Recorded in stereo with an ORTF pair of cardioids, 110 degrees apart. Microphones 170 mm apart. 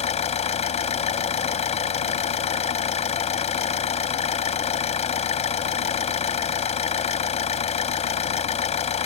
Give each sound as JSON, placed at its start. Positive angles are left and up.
{"t": 0.0, "sound": "an engine running", "azimuth_deg": 45}